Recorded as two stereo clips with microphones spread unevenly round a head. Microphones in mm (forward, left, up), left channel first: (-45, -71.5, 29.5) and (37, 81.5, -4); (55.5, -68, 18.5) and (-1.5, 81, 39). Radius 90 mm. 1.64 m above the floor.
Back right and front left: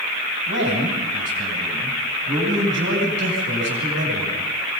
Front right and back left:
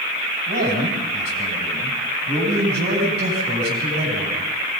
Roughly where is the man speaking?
Left.